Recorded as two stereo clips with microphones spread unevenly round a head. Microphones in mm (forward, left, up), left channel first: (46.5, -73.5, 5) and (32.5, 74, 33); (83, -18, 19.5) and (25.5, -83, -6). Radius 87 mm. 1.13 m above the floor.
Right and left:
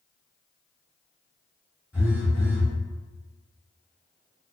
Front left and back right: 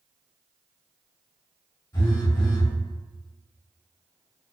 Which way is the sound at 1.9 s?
15° left.